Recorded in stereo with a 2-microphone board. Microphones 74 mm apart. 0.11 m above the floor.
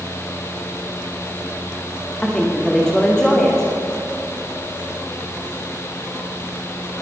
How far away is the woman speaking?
About 8 m.